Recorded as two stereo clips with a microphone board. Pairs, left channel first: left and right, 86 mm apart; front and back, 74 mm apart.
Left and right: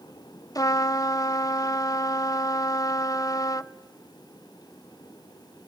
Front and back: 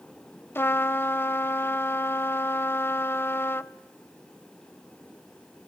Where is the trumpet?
55° left, 0.5 m.